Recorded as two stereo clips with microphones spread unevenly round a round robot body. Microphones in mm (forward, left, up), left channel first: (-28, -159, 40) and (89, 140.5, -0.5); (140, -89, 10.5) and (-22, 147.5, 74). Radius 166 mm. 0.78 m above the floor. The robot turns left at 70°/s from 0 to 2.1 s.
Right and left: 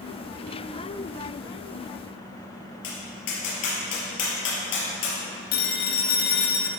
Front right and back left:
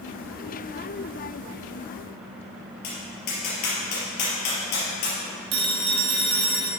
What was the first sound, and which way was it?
Tapping, 90° right.